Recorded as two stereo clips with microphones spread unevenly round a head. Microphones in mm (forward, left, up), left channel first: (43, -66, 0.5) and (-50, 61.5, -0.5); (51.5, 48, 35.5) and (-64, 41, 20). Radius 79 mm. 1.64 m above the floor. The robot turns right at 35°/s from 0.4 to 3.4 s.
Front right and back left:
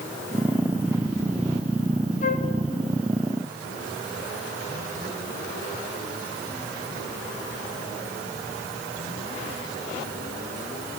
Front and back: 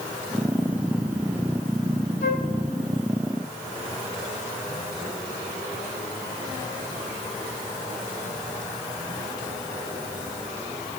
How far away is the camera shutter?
No camera shutter in this recording.